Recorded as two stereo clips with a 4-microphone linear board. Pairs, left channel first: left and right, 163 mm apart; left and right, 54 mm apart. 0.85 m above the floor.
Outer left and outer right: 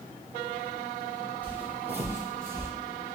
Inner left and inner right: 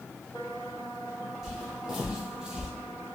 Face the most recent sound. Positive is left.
turn(degrees=-15)  # may be behind; listen again after turning